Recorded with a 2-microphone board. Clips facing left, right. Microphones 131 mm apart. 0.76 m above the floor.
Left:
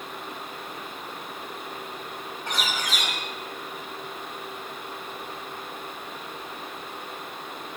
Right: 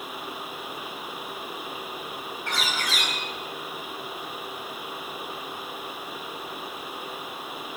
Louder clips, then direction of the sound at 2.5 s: Even; 15° left (ahead or behind).